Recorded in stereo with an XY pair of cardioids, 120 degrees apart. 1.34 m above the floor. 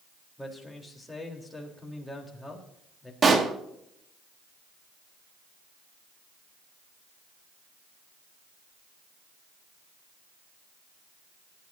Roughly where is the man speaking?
Ahead.